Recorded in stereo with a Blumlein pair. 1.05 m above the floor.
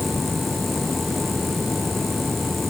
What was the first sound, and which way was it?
A machine running, 10° left.